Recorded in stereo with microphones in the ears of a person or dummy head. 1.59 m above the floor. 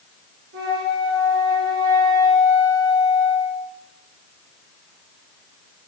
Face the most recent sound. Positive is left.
turn(degrees=-55)  # may be behind; listen again after turning